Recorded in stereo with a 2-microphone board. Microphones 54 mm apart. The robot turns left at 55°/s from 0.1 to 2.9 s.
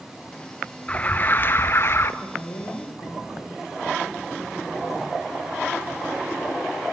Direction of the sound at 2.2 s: 130° left.